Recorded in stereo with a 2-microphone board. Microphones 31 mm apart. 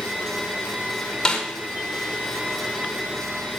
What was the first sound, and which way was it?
A snare drum, 15° left (ahead or behind).